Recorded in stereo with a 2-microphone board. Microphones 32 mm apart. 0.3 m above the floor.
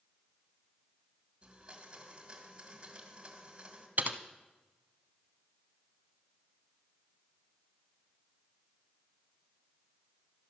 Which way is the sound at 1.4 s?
35° right (ahead or behind).